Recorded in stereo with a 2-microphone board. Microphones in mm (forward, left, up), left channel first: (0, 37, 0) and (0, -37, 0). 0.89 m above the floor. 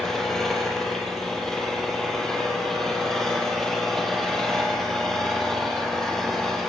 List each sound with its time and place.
0.0 s an engine running: 5° left (ahead or behind), 6.5 m